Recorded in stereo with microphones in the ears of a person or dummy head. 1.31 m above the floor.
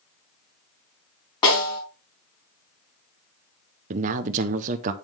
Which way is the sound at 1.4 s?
30° left (ahead or behind).